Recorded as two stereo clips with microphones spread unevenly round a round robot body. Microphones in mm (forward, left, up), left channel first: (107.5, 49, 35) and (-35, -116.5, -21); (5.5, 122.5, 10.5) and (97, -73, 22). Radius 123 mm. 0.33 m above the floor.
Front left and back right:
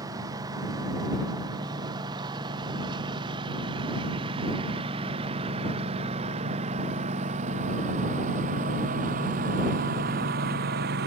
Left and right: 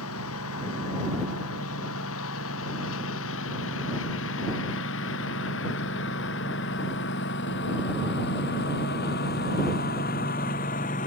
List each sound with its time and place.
0.0 s a lawn mower: 150° left; by 11.1 s 175° left